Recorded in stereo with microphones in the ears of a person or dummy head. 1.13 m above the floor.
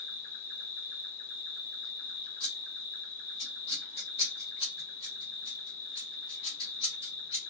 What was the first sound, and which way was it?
An insect, 75° left (ahead or behind).